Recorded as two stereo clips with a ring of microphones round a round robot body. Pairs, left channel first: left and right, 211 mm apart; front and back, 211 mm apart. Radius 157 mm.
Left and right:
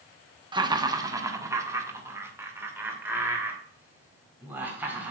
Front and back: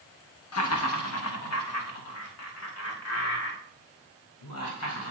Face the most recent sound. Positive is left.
turn(degrees=-10)